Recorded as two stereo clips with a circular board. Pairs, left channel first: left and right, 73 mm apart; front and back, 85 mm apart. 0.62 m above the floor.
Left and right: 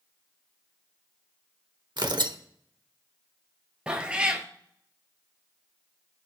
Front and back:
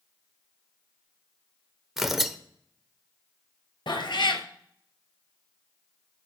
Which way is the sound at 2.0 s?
95° right.